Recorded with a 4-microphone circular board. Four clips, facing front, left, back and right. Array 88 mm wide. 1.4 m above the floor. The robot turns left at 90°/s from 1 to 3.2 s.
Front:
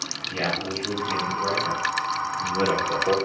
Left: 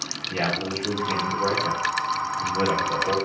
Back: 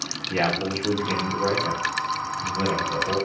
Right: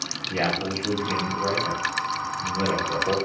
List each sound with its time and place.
0.3 s a man speaking: 175° left, 2.5 m; by 3.1 s 20° right, 2.5 m